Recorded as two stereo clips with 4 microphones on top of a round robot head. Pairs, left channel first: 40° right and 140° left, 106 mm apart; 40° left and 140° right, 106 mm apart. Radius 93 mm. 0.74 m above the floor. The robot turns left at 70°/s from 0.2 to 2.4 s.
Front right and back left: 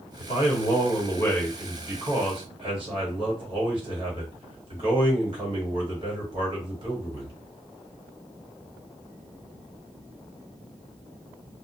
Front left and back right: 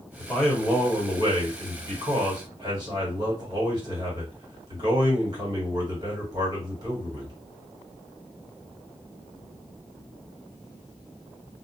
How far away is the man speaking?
About 1.7 m.